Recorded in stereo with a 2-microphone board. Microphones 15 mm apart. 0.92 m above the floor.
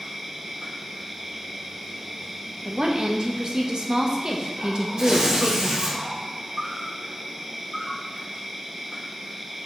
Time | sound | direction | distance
0.0 | an insect | 30° right (ahead or behind) | 1.4 m
2.6 | a woman speaking | 50° right (ahead or behind) | 0.9 m
5.0 | tearing paper | 55° right (ahead or behind) | 2 m